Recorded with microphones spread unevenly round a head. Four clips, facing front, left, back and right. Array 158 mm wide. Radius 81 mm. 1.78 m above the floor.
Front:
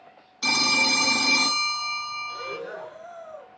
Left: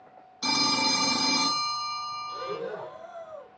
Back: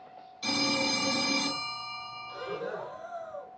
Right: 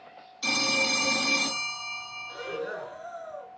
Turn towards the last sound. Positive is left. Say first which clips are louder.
# right 4 dB, front 2 dB
turn(degrees=130)